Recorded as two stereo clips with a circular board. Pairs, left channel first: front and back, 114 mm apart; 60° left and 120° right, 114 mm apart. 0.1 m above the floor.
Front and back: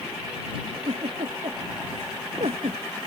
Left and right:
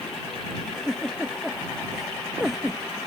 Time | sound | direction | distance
0.6 | a giggle | 150° left | ?